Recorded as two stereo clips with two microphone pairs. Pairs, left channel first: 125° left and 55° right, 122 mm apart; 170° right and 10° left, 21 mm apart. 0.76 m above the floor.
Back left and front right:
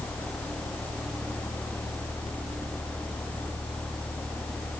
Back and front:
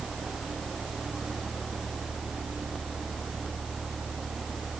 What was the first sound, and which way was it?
Only background noise.